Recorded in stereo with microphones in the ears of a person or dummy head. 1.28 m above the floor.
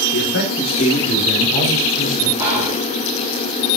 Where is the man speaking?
70° left (ahead or behind), 3 m; by 2.3 s 25° left (ahead or behind), 4 m.